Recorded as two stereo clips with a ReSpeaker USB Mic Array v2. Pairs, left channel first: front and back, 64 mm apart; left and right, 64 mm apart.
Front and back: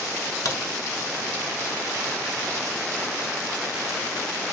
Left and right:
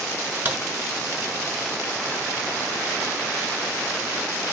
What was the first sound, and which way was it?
A crack, 30° right.